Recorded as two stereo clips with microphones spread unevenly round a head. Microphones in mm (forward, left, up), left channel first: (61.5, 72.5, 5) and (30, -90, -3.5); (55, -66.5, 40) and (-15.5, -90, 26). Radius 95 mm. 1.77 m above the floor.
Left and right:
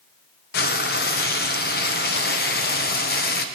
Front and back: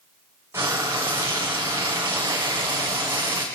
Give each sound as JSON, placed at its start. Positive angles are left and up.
{"t": 0.5, "sound": "frying", "azimuth_deg": 120, "distance_m": 1.4}